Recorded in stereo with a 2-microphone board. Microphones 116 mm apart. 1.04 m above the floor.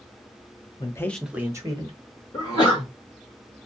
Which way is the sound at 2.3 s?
40° left (ahead or behind).